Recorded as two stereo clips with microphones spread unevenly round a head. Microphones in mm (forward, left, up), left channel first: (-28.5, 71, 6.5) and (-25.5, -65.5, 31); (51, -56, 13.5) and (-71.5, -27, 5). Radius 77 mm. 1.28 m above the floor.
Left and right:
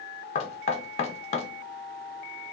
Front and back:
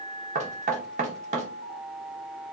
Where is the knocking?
135° left, 0.6 m.